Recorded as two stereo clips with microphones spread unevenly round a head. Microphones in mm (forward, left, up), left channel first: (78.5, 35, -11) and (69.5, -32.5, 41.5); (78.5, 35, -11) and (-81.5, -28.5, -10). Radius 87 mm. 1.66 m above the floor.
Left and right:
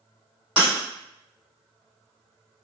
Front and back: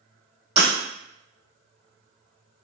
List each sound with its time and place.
0.6 s breaking glass: 135° right, 2.0 m